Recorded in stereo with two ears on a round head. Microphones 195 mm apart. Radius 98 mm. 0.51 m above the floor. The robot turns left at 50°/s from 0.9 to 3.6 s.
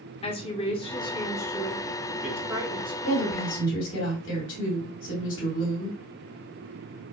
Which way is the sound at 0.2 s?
50° left.